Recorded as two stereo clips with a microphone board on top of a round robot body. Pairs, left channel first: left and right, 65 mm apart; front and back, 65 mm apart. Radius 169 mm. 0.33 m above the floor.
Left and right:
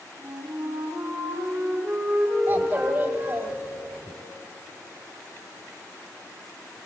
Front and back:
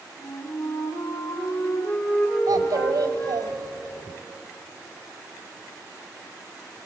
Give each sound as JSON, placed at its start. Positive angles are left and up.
{"t": 0.2, "sound": "a flute", "azimuth_deg": -35, "distance_m": 9.0}
{"t": 2.5, "sound": "a child speaking", "azimuth_deg": -160, "distance_m": 1.6}